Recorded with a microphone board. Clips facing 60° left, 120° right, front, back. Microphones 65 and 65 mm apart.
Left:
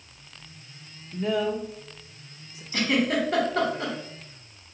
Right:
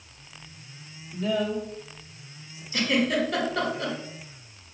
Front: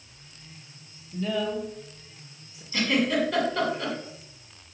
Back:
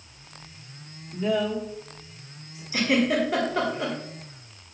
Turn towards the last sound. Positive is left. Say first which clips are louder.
# even, back 2 dB
turn(degrees=115)